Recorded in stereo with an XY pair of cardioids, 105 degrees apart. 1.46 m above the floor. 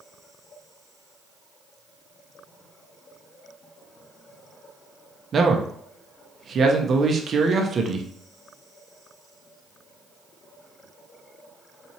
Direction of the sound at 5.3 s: 45° right.